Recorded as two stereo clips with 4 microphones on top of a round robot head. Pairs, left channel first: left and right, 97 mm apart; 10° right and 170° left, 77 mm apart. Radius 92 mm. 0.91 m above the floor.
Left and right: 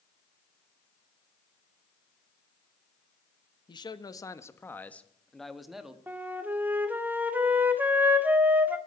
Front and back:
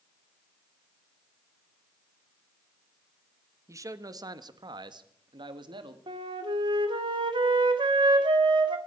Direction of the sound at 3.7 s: 125° left.